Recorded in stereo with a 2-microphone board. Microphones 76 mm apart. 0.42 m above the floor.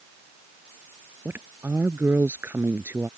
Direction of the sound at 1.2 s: 30° right (ahead or behind).